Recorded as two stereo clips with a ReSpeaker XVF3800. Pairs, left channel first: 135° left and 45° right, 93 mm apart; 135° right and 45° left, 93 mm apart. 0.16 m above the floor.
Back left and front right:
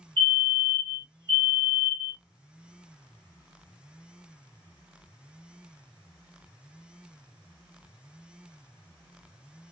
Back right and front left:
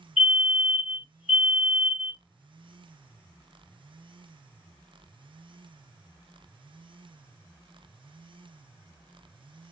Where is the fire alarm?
120° left, 2 m.